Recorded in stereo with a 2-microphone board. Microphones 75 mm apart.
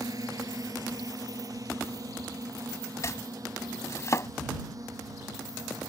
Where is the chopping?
40° left (ahead or behind).